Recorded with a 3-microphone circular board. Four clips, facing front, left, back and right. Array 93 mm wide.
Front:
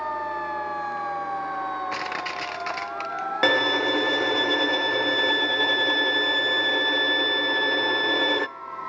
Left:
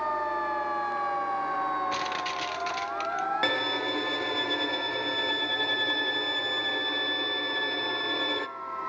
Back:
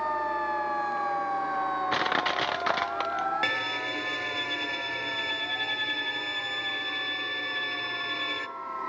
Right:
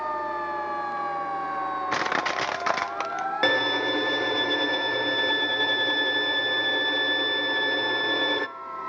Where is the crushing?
120° right, 0.6 m.